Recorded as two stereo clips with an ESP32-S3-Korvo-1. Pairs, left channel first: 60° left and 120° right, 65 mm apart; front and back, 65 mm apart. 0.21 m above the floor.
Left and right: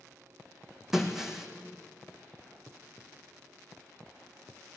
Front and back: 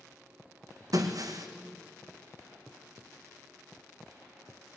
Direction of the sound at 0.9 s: 155° left.